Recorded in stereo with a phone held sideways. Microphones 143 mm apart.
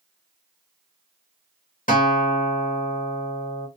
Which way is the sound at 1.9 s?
80° left.